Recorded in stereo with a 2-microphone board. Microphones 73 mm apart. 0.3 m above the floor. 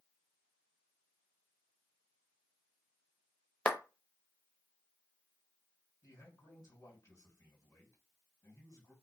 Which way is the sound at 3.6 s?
15° left (ahead or behind).